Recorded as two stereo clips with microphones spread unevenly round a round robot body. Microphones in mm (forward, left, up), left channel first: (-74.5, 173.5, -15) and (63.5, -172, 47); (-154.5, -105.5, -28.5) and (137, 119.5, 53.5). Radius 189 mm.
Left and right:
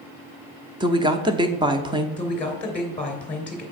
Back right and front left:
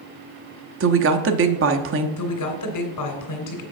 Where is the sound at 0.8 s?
15° left, 0.8 m.